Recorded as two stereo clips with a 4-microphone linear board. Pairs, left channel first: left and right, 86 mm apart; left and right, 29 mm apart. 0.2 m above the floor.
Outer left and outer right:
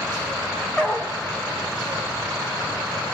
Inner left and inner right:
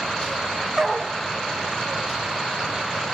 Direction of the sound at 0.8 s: 10° left (ahead or behind).